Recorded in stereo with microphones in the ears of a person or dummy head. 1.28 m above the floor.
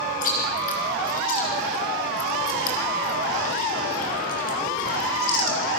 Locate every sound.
0.2 s chewing: 45° left (ahead or behind), 3.5 m